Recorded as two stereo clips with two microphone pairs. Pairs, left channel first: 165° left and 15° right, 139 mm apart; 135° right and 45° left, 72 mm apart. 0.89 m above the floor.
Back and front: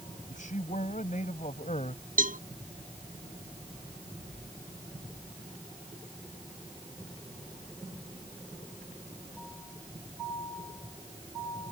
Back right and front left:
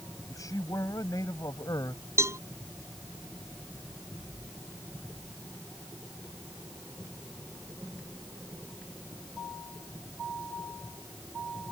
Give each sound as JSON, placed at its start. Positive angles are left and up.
{"t": 0.3, "sound": "a man speaking", "azimuth_deg": -170}
{"t": 2.2, "sound": "a cowbell", "azimuth_deg": 0}